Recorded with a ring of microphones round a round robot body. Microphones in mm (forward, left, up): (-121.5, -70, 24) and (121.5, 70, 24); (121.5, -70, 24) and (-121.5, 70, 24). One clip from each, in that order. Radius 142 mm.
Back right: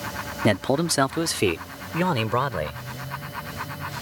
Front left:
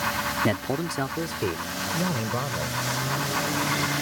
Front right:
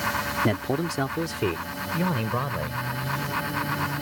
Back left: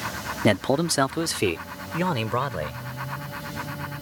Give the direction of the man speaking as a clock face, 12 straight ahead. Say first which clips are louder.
Back right 4 dB, back left 4 dB; 7 o'clock.